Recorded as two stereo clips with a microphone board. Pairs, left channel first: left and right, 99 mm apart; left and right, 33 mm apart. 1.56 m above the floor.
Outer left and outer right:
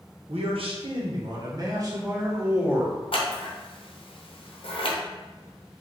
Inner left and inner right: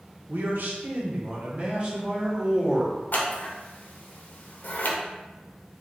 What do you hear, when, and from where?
0.3 s a man speaking: 75° right (ahead or behind), 0.9 m; by 3.0 s 20° right (ahead or behind), 1.9 m
3.1 s scissors: 60° left (ahead or behind), 0.7 m